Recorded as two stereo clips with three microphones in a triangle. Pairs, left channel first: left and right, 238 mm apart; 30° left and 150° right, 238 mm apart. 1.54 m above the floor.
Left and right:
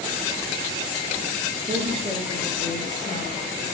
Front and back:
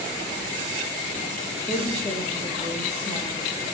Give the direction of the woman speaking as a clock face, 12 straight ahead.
1 o'clock.